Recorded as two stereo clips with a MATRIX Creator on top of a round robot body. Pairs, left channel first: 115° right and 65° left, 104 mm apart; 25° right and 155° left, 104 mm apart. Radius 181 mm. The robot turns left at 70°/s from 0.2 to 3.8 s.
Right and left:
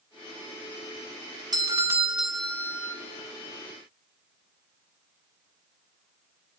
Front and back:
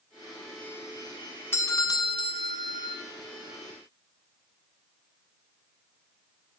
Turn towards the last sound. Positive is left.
turn(degrees=-125)